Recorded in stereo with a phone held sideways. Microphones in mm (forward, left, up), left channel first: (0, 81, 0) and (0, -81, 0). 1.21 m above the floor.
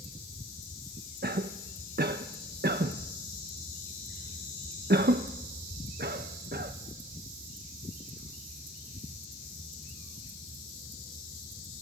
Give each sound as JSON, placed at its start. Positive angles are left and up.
{"t": 1.2, "sound": "a cough", "side_deg": -85, "distance_m": 0.8}